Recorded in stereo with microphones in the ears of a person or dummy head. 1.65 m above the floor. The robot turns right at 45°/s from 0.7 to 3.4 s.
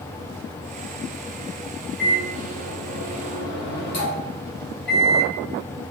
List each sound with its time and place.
2.0 s a microwave: 10° left, 1.2 m; by 5.3 s 75° left, 1.2 m